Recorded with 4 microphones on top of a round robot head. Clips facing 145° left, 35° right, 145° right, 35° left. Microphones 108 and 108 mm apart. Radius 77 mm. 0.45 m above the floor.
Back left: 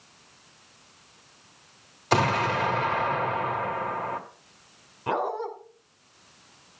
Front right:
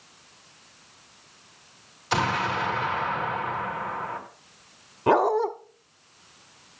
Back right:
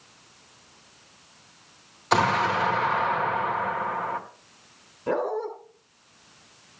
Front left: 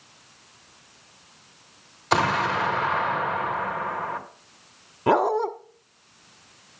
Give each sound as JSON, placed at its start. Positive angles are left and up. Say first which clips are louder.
{"t": 2.1, "sound": "an explosion", "louder": "back left 2 dB, even", "azimuth_deg": 125, "distance_m": 2.5}
{"t": 5.1, "sound": "a dog barking", "louder": "front right 8 dB, front left 6 dB", "azimuth_deg": 20, "distance_m": 1.0}